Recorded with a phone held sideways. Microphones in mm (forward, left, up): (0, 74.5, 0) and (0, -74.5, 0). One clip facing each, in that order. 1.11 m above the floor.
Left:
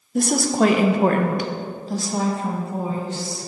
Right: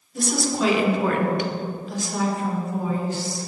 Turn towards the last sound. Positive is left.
turn(degrees=25)  # may be behind; listen again after turning